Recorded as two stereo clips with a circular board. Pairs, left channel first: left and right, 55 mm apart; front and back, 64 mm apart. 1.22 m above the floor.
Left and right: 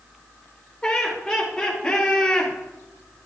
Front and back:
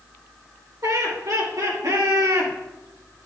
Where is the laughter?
170° left, 4 m; by 2.5 s 165° left, 2.5 m.